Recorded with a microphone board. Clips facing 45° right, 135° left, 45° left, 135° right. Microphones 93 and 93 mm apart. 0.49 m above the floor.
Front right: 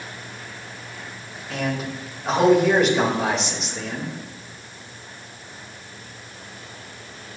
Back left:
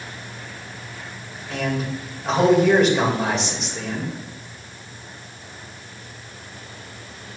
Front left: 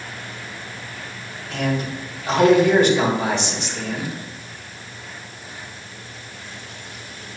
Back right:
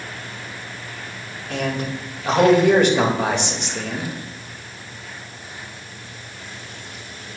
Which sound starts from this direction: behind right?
A man speaking, at 1.5 s.